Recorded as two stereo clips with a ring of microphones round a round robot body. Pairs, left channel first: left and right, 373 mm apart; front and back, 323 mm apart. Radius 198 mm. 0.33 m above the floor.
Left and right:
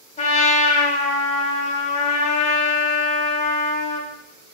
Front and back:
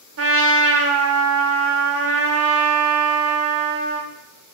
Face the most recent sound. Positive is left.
turn(degrees=155)